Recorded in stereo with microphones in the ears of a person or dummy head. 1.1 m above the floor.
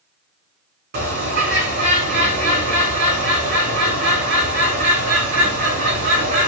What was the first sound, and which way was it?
A bird, 55° right (ahead or behind).